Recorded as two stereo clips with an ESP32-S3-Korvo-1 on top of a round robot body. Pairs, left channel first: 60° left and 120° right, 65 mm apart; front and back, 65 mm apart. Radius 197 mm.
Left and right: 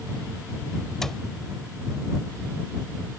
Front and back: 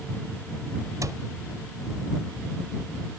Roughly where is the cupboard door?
Behind left.